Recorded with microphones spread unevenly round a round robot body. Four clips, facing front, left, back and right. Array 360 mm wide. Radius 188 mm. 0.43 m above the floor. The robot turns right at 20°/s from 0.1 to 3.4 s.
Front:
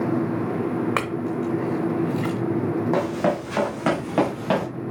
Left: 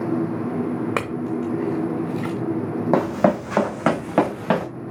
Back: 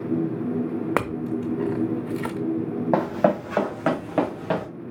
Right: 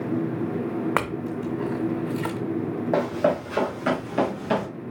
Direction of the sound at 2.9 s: 105° left.